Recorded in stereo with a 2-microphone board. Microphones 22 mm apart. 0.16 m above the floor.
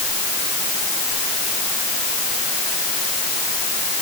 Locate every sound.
Only background noise.